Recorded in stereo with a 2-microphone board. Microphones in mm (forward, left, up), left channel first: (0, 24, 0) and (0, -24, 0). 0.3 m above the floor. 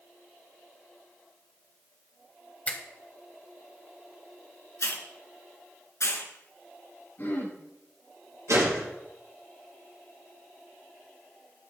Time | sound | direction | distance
2.7 | a finger snap | 30° left (ahead or behind) | 1.6 m
4.8 | a hiss | 75° left (ahead or behind) | 2.5 m
7.2 | throat clearing | 50° left (ahead or behind) | 8 m
8.5 | a gunshot | 80° right | 7 m